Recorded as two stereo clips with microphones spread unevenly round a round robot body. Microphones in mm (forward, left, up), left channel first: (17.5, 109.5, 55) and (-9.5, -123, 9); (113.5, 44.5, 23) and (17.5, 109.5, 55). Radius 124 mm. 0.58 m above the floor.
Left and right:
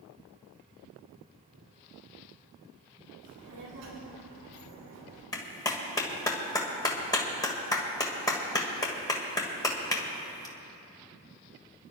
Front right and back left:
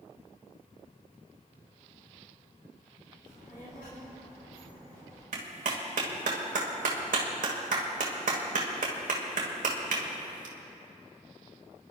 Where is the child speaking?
85° right, 5 m; by 5.2 s 95° right, 7 m.